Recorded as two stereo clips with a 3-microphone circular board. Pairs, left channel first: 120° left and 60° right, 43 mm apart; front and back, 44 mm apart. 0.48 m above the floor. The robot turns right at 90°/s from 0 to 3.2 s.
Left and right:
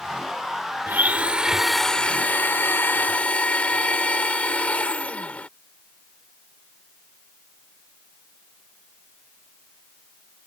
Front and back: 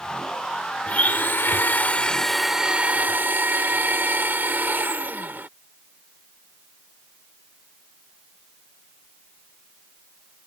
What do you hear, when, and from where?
0.9 s a blender: 45° right; by 5.5 s 165° left